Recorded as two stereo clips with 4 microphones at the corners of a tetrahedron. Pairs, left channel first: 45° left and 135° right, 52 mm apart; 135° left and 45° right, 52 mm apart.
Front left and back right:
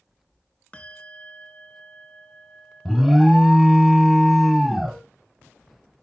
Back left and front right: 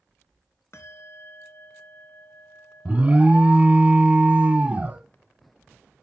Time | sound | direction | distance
0.7 | a bell | 110° left | 0.8 m
2.9 | an alarm | 55° right | 0.9 m